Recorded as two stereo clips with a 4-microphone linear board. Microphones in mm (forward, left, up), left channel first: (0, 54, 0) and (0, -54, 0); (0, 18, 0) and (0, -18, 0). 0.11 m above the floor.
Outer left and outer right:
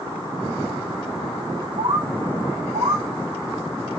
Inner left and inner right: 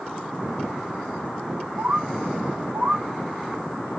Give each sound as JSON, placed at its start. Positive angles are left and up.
{"t": 1.8, "sound": "a bird", "side_deg": -50, "distance_m": 3.5}